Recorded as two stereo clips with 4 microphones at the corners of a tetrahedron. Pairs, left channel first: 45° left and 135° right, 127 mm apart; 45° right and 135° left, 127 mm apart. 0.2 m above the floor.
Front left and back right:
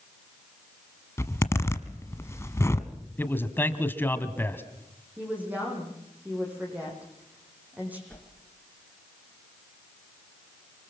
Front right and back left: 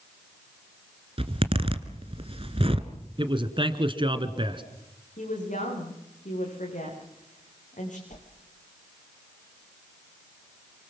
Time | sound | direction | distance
1.2 | a zipper | 110° left | 1.4 m
3.2 | a man speaking | 115° left | 1.9 m
5.2 | a woman speaking | 55° right | 10 m
8.1 | a whoosh | 35° right | 3 m